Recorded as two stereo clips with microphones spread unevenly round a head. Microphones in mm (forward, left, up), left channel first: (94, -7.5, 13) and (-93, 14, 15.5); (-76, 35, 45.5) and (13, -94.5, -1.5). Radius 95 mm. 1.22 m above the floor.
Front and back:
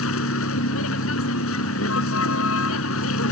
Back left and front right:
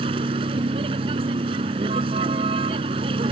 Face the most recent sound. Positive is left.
turn(degrees=10)